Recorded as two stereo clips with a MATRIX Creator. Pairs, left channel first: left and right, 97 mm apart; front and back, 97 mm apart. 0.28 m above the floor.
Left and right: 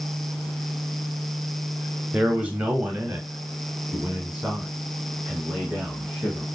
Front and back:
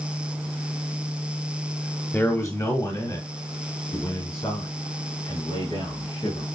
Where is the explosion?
No explosion in this recording.